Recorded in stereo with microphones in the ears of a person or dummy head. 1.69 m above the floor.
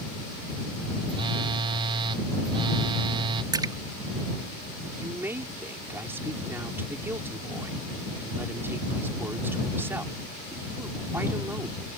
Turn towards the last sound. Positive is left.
turn(degrees=-15)  # may be behind; listen again after turning